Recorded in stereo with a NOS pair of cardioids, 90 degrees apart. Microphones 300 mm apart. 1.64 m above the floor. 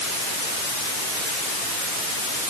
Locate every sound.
Only background noise.